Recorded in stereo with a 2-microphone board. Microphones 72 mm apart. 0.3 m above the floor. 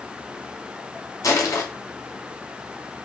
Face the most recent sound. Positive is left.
turn(degrees=55)  # may be behind; listen again after turning